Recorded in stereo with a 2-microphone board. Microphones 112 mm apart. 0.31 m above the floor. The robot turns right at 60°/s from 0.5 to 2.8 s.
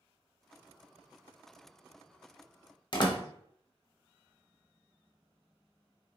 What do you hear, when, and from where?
2.9 s a door slam: 45° left (ahead or behind), 0.8 m